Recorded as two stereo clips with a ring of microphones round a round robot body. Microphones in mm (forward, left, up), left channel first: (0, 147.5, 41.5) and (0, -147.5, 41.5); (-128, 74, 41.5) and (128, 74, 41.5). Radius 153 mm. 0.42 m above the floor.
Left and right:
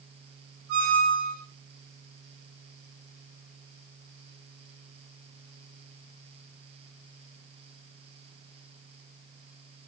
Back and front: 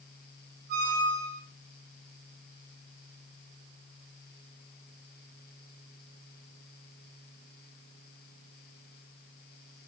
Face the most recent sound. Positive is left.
turn(degrees=-45)